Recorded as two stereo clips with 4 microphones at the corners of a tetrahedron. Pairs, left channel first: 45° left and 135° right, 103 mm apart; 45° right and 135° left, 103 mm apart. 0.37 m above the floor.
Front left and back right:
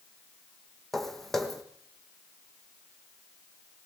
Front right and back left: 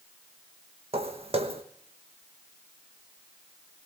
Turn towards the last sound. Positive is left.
turn(degrees=135)